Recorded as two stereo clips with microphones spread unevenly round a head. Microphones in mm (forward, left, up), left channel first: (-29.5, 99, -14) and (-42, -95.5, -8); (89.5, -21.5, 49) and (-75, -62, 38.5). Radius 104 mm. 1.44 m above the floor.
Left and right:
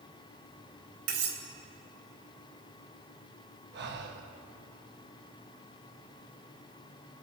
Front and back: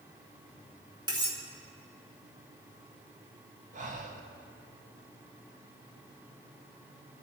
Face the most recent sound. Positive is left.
turn(degrees=-120)